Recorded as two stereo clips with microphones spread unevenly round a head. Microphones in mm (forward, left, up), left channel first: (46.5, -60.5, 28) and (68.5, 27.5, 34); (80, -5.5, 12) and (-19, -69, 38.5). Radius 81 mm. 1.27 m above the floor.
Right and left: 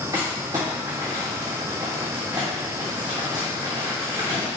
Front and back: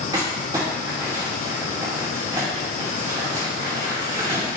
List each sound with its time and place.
0.1 s crumpling: 145° left, 2.5 m